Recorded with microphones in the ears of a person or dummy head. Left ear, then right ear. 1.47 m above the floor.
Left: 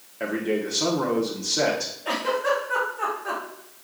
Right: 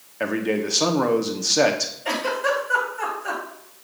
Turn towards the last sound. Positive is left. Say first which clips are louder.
# even
turn(degrees=-80)